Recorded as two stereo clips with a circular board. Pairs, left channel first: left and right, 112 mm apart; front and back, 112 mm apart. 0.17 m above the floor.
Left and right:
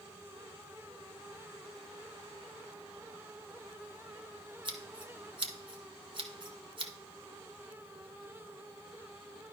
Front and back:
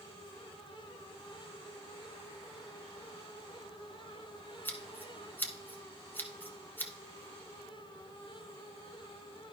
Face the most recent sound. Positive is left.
turn(degrees=-65)